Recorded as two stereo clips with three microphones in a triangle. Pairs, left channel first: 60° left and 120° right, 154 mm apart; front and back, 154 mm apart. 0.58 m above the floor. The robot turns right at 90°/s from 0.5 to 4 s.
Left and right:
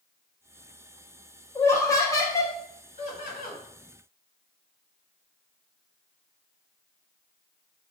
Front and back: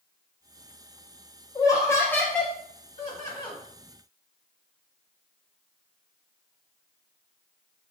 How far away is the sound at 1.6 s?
About 0.6 m.